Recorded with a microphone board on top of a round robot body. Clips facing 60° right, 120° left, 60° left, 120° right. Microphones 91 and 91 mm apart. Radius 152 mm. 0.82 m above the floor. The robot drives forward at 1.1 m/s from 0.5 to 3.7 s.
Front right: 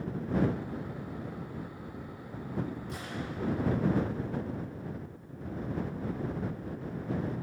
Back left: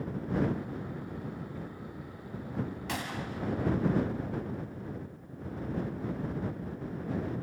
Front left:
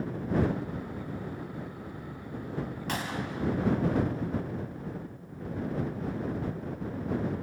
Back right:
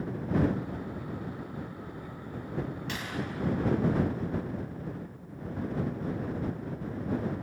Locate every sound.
2.9 s a gunshot: 110° left, 1.5 m; by 3.9 s 135° left, 2 m